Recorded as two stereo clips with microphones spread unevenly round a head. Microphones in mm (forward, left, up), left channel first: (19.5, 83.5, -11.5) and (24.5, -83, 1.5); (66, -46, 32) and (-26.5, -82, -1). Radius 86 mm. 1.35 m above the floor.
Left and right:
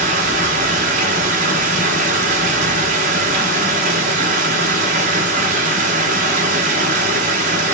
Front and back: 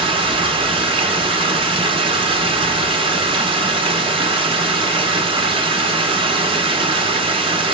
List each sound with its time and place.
0.0 s running water: 120° right, 1.1 m